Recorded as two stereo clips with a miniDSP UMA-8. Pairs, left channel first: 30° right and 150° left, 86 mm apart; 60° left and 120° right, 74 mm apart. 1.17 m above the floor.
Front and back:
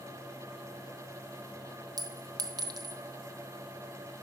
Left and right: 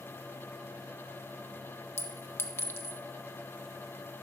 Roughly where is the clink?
Behind left.